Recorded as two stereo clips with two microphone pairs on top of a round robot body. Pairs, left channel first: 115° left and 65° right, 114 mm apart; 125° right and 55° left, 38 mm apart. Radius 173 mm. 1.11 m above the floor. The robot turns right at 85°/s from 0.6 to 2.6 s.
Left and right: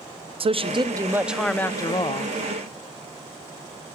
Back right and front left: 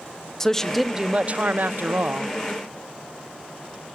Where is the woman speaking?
45° right, 0.6 m; by 2.3 s 100° left, 0.6 m.